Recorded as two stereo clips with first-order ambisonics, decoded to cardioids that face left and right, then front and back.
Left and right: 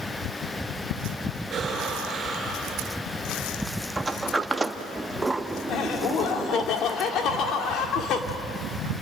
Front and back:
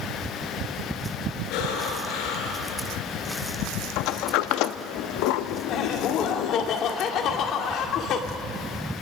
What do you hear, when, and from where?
1.5 s breathing: 25° right, 4.5 m
4.0 s a sliding door: 10° right, 0.7 m
5.7 s laughter: 45° left, 2 m